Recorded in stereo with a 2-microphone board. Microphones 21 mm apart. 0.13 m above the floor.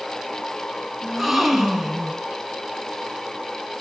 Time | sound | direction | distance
1.0 | a gasp | 10° right (ahead or behind) | 1.7 m